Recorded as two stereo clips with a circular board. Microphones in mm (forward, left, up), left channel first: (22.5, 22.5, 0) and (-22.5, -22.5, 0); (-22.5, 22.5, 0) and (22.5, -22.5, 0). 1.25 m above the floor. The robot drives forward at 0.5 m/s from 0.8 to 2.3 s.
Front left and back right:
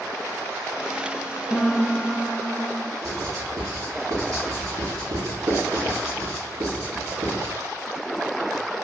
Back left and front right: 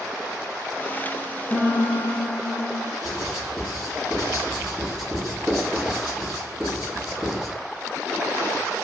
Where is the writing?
135° right, 1.6 m.